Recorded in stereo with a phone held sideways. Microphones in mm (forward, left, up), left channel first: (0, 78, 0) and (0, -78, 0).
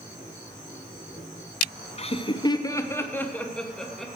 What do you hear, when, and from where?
2.0 s laughter: 40° left (ahead or behind), 0.7 m; by 4.1 s centre (ahead or behind), 1.4 m